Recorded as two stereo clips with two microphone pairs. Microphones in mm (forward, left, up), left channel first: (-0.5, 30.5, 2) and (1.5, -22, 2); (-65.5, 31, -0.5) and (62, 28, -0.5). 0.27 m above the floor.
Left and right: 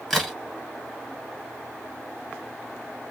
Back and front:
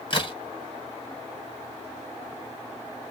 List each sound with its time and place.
0.1 s a crack: straight behind, 1.5 m